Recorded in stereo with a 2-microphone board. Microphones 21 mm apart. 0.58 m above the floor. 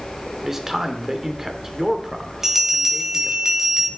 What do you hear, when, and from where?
0.4 s a man speaking: 20° right (ahead or behind), 1.6 m
2.4 s a bell: 20° right (ahead or behind), 2 m